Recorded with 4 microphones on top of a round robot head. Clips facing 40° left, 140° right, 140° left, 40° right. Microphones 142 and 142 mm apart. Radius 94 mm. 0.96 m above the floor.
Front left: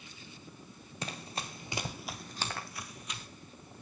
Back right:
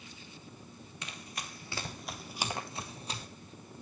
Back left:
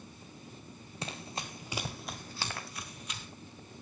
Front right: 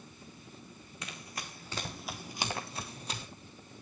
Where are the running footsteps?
85° left, 1.2 m; by 3.3 s 90° right, 1.3 m.